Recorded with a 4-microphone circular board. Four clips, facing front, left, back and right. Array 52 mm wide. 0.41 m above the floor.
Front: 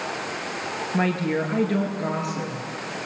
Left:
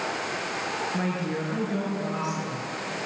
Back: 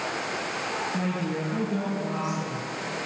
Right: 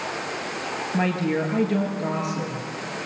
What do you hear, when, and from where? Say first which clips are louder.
0.9 s a woman speaking: right 5 dB, front 5 dB; 15° right, 7.5 m